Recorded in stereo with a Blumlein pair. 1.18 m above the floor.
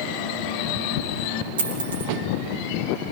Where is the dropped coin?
65° right, 7 m.